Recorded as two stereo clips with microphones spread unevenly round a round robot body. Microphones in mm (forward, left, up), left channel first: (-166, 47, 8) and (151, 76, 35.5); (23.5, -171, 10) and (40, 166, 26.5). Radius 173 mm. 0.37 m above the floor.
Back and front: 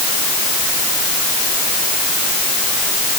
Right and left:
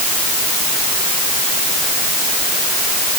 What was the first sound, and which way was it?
Only background noise.